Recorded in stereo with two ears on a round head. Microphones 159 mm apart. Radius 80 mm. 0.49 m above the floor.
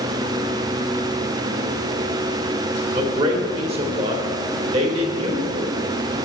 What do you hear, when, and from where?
2.9 s a man speaking: 35° right (ahead or behind), 1.5 m